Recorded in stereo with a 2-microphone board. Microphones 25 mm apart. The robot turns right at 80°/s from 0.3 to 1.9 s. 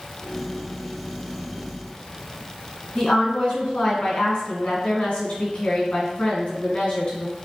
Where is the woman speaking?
55° left (ahead or behind), 1.8 m.